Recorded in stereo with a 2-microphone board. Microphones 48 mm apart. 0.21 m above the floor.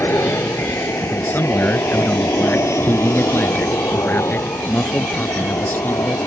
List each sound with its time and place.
0.0 s an aircraft: 60° left (ahead or behind); by 6.3 s 75° left (ahead or behind)
1.1 s a man speaking: 40° left (ahead or behind)